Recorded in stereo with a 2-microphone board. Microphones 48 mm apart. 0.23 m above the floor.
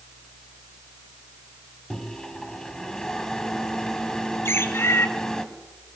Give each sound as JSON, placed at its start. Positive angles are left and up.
{"t": 1.9, "sound": "a microwave", "side_deg": 15, "distance_m": 1.6}
{"t": 4.5, "sound": "a bird", "side_deg": 70, "distance_m": 1.5}